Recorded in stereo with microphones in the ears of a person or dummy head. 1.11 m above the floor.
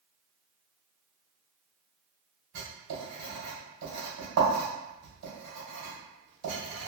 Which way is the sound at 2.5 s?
65° right (ahead or behind).